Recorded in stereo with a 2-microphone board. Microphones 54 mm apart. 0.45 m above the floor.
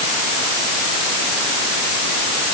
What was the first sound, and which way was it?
Only background noise.